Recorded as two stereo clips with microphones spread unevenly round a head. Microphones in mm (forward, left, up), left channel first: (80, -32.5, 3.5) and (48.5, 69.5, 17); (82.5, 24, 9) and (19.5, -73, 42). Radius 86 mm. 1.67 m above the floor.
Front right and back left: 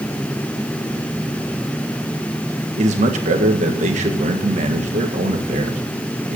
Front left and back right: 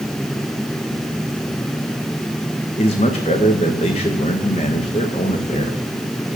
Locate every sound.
2.8 s a man speaking: 115° left, 1.7 m